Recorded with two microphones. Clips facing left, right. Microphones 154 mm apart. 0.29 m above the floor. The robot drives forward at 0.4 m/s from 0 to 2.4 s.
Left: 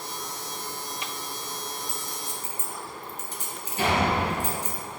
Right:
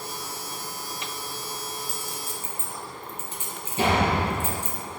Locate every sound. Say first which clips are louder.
1.9 s a clink: right 1 dB; 35° left (ahead or behind), 3 m
3.8 s a door slam: right 2 dB; 25° right (ahead or behind), 3.5 m